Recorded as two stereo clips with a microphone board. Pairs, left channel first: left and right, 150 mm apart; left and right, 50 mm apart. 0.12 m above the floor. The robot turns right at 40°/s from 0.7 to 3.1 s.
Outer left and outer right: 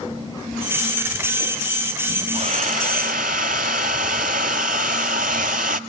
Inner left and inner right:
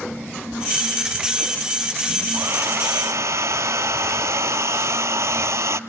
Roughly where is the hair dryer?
Behind right.